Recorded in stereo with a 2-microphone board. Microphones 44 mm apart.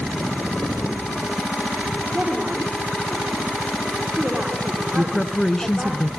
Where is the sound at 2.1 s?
35° right (ahead or behind), 7 m.